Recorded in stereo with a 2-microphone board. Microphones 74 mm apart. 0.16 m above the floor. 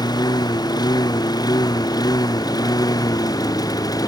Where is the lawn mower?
65° left (ahead or behind); by 4.1 s 55° left (ahead or behind).